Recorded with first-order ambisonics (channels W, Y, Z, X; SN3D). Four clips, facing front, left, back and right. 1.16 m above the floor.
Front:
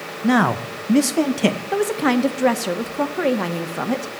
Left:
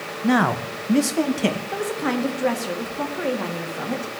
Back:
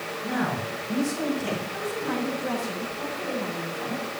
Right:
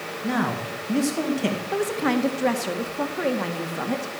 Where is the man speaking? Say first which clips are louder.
Left 6 dB, front 11 dB; 30° left, 1.1 m; by 1.6 s 15° left, 2 m.